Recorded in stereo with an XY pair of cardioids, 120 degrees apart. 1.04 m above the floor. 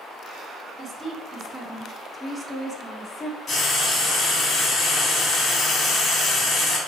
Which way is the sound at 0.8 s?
35° right.